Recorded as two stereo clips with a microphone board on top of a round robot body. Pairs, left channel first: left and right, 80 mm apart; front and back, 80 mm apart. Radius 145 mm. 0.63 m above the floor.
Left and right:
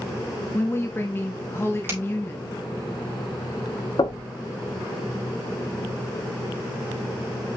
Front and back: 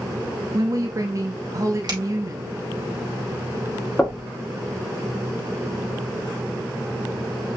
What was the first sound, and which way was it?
A woman speaking, 145° left.